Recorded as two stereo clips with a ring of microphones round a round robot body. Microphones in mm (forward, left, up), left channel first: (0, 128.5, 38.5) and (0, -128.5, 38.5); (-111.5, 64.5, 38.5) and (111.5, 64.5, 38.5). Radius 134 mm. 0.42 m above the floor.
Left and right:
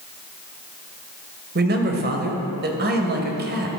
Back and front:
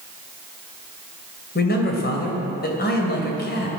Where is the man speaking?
135° right, 2.5 m.